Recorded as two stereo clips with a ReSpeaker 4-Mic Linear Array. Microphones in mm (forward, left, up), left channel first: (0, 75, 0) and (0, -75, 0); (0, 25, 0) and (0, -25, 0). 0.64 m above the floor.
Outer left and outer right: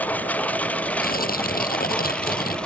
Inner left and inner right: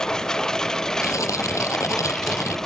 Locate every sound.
0.0 s a lawn mower: 10° left (ahead or behind); by 2.7 s 5° left (ahead or behind)
1.0 s tearing paper: 80° left